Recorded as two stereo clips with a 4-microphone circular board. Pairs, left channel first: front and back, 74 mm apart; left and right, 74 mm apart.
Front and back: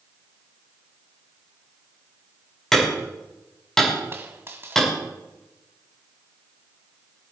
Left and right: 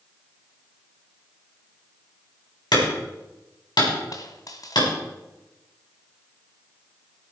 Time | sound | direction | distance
2.7 | hammering | 85° left | 5.5 m
4.1 | a dropped coin | 125° left | 1.5 m